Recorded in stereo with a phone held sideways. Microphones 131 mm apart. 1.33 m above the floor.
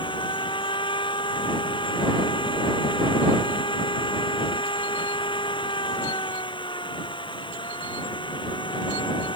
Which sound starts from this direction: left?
A machine running, at 0.0 s.